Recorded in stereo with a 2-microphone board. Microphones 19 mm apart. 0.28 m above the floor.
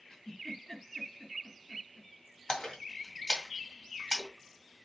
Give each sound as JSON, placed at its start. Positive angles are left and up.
{"t": 0.1, "sound": "a giggle", "side_deg": 20, "distance_m": 2.5}
{"t": 2.5, "sound": "a splash", "side_deg": 45, "distance_m": 2.0}